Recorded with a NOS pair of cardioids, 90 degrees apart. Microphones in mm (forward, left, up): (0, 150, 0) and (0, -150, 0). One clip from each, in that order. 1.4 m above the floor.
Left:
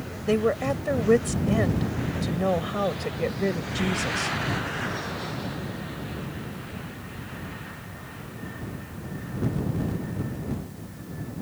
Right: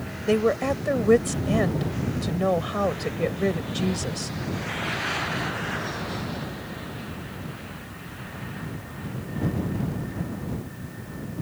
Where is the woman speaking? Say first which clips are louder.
Right 2 dB; 10° right.